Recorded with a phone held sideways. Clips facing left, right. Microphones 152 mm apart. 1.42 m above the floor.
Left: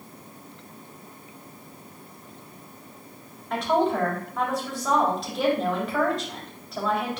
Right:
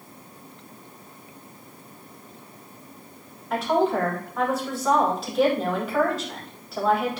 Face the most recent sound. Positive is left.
turn(degrees=0)  # may be behind; listen again after turning